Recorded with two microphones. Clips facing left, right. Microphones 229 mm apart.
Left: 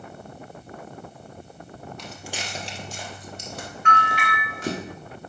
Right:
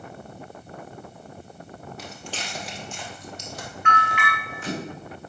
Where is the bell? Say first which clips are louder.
Left 1 dB; 40° left (ahead or behind), 3 m.